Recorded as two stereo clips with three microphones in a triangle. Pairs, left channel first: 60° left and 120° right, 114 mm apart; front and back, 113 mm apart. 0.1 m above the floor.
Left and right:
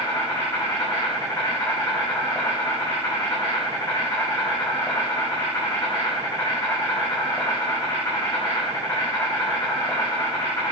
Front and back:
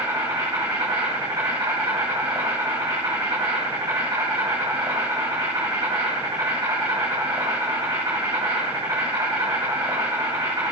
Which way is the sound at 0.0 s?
120° left.